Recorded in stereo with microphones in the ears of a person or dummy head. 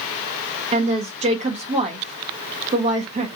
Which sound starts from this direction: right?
A woman speaking, at 0.7 s.